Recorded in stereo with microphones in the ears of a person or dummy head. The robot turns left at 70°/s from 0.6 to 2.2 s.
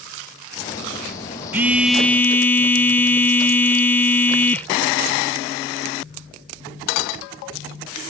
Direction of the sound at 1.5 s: 15° right (ahead or behind).